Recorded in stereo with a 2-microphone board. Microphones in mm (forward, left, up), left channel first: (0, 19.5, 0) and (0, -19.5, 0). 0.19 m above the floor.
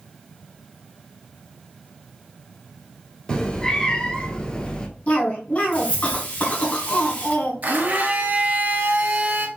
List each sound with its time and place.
3.3 s a cat meowing: 20° left (ahead or behind), 1.0 m
5.1 s a cough: 35° left (ahead or behind), 1.4 m
7.6 s a blender: 45° right (ahead or behind), 1.5 m